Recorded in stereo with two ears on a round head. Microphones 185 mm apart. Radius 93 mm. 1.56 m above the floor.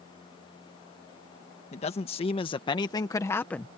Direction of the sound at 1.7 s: 30° left (ahead or behind).